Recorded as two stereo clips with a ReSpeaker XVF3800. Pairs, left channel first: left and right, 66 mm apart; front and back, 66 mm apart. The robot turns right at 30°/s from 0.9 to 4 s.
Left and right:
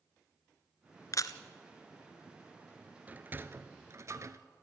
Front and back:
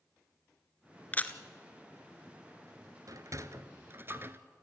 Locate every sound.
1.1 s a camera shutter: 65° left, 0.9 m; by 1.4 s 70° left, 0.9 m
3.1 s a sliding door: 155° right, 0.8 m; by 4.4 s 125° right, 0.8 m